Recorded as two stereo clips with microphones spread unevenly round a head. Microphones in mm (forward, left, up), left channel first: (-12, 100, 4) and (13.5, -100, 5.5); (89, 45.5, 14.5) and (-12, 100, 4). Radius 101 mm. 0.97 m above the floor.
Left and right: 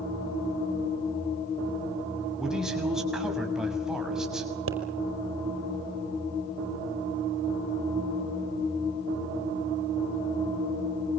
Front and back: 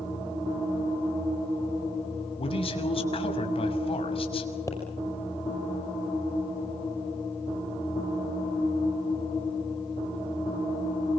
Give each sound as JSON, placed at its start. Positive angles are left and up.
{"t": 2.4, "sound": "a man speaking", "azimuth_deg": 5, "distance_m": 6.5}
{"t": 4.7, "sound": "a pop", "azimuth_deg": -105, "distance_m": 5.0}